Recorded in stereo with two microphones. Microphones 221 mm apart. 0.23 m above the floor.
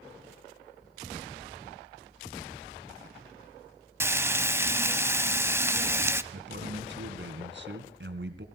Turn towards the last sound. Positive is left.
turn(degrees=-55)  # may be behind; listen again after turning